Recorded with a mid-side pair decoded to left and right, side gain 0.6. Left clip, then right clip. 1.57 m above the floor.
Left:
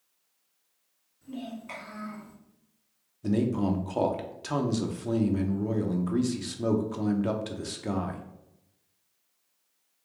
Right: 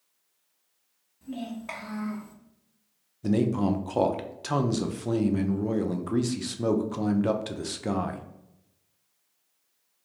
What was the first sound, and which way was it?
A child speaking, 65° right.